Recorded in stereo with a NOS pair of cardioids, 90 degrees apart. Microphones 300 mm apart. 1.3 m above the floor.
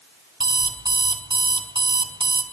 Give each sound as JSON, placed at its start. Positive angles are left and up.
{"t": 0.4, "sound": "an alarm clock", "azimuth_deg": -15, "distance_m": 3.0}